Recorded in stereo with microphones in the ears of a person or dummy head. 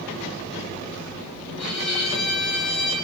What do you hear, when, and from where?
1.6 s a violin: 5° left (ahead or behind), 3.5 m